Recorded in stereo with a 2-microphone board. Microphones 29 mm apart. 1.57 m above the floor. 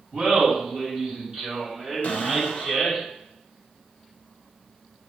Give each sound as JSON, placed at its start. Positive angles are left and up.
{"t": 0.1, "sound": "laughter", "side_deg": -50, "distance_m": 2.5}
{"t": 2.0, "sound": "a cupboard door", "side_deg": 55, "distance_m": 1.2}